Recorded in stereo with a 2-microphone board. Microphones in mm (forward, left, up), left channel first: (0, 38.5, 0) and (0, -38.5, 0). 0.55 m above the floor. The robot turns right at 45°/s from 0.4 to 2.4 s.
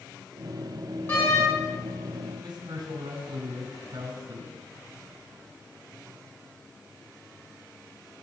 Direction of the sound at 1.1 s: 30° left (ahead or behind).